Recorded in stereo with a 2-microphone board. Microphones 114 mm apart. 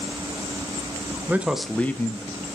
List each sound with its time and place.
1.3 s a man speaking: 15° right (ahead or behind), 0.8 m; by 2.5 s 40° left (ahead or behind), 1.0 m